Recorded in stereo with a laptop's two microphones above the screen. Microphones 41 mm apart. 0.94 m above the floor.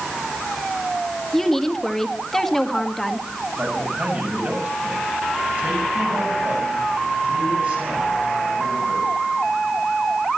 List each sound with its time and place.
1.3 s a woman speaking: 10° left (ahead or behind), 1.7 m
3.6 s a man speaking: 45° right (ahead or behind), 7.5 m